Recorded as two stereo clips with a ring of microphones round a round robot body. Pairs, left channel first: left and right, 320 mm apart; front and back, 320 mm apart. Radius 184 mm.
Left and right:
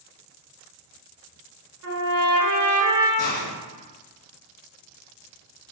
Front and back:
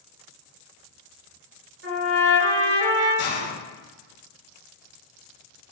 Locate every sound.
1.8 s a trumpet: 125° right, 3.5 m
3.2 s a hiss: 10° left, 3.5 m